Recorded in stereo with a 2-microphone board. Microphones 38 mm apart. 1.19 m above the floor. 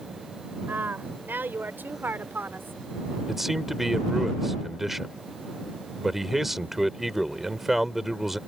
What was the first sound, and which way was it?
A woman speaking, 60° right (ahead or behind).